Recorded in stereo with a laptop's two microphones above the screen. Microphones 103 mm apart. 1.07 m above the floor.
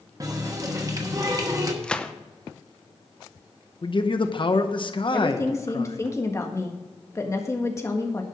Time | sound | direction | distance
0.2 | a running tap | 30° right (ahead or behind) | 1.0 m
1.8 | a gunshot | 10° left (ahead or behind) | 0.6 m
3.8 | a man speaking | 50° left (ahead or behind) | 0.9 m
5.1 | a woman speaking | 25° left (ahead or behind) | 1.6 m